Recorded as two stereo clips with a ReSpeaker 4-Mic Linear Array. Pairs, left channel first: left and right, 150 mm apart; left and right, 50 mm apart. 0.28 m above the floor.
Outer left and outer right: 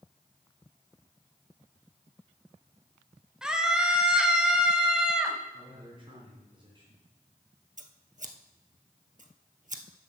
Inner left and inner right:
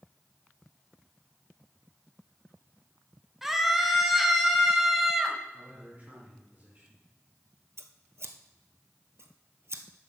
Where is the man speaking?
35° right (ahead or behind), 3 m.